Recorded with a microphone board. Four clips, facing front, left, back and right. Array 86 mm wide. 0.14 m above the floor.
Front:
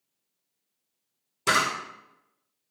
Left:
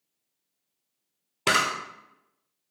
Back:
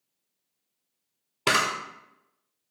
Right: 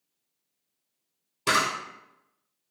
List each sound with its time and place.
1.5 s a camera shutter: 140° left, 0.8 m